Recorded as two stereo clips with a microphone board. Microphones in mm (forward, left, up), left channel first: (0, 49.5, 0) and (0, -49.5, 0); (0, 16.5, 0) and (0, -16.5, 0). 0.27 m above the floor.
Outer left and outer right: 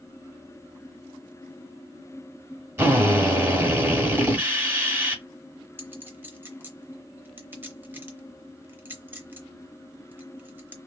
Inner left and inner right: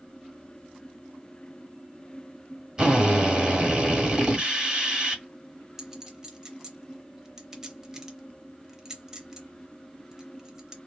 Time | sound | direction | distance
2.8 | a drill | 30° right (ahead or behind) | 1.5 m
5.8 | a clink | 20° right (ahead or behind) | 0.7 m